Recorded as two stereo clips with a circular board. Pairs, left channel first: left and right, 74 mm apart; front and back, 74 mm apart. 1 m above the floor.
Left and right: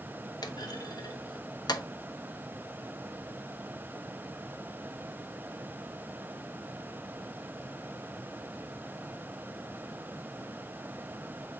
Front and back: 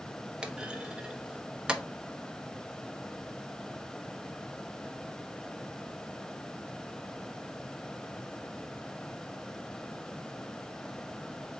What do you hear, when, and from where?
0.4 s a clunk: 105° left, 0.7 m